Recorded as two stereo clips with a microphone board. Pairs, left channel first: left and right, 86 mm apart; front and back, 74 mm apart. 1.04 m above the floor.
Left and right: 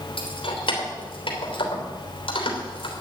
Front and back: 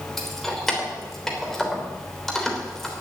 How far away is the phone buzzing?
I don't hear a phone buzzing.